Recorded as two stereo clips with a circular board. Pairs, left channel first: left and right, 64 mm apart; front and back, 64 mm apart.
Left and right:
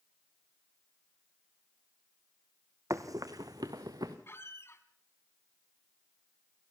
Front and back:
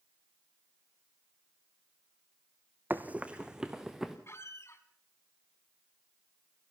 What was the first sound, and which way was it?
Running footsteps, 120° right.